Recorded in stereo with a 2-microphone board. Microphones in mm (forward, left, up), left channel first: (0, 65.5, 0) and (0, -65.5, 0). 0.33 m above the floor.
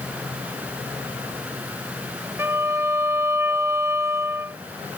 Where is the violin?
20° right (ahead or behind).